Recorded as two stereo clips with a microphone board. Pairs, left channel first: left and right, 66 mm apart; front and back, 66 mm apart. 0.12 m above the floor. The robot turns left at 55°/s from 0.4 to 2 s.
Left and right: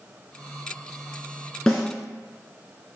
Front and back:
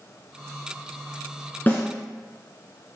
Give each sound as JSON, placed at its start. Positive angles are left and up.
{"t": 1.7, "sound": "a snare drum", "azimuth_deg": 10, "distance_m": 1.7}